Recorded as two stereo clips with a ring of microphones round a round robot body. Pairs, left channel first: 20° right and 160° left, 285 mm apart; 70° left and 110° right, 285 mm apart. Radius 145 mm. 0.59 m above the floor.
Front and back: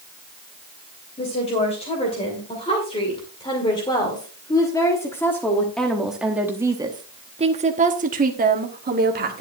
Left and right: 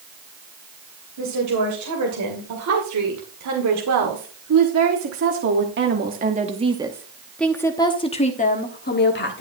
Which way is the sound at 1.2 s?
90° right.